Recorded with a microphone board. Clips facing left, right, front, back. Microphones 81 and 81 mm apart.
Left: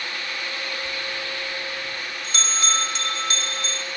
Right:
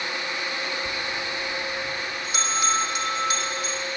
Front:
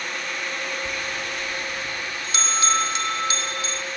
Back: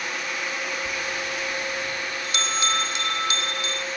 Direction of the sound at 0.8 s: 25° right.